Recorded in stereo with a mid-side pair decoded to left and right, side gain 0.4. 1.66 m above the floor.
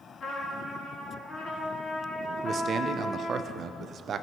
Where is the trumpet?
60° left, 3 m.